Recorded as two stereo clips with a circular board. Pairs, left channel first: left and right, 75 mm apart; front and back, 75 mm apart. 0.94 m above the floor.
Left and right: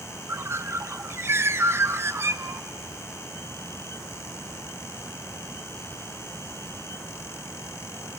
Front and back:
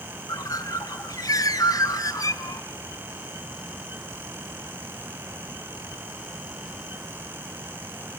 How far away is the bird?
About 0.7 m.